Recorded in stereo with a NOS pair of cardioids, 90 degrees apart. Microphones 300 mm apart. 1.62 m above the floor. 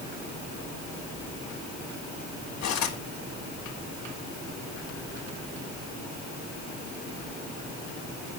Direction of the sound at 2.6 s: 60° left.